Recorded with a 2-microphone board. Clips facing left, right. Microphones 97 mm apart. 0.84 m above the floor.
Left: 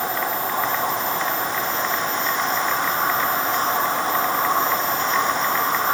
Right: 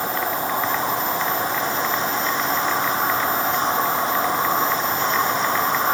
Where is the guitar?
No guitar in this recording.